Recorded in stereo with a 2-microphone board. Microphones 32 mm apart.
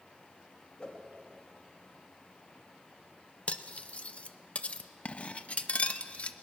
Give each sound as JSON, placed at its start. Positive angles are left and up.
{"t": 0.8, "sound": "a whoosh", "side_deg": 30, "distance_m": 2.0}
{"t": 3.5, "sound": "cutlery clinking", "side_deg": 40, "distance_m": 0.6}